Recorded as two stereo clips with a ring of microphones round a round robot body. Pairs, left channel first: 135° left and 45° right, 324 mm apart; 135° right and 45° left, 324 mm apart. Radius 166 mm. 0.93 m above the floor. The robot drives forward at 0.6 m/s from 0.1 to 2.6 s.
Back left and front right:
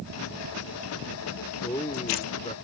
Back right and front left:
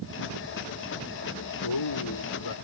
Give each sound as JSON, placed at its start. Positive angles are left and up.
{"t": 1.6, "sound": "a man speaking", "azimuth_deg": -145}